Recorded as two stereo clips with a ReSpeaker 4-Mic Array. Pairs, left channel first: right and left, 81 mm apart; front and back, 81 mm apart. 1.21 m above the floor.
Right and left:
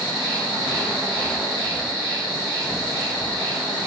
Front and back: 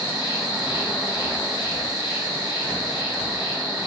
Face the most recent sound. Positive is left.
turn(degrees=-20)